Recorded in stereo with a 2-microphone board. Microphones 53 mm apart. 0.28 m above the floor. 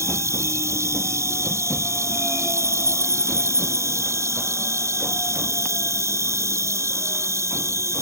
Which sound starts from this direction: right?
An insect, at 0.0 s.